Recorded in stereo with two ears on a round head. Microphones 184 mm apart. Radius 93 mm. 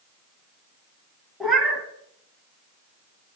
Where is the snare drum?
I don't hear a snare drum.